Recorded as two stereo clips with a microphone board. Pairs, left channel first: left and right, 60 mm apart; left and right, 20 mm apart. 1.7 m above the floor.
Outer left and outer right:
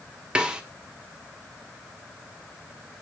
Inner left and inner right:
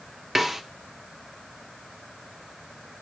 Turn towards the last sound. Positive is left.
turn(degrees=-15)  # may be behind; listen again after turning